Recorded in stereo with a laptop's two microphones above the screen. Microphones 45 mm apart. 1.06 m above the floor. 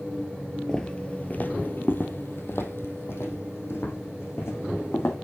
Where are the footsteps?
15° left (ahead or behind), 1.3 m; by 5.2 s 70° left (ahead or behind), 4 m.